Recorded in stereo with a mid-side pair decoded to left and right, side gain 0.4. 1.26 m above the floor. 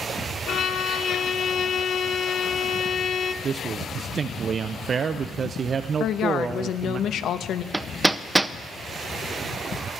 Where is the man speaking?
55° right, 0.5 m.